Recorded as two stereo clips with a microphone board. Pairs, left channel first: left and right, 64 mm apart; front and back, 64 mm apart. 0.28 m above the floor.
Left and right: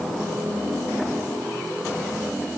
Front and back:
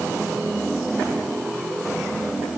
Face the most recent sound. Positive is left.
No sound to turn to.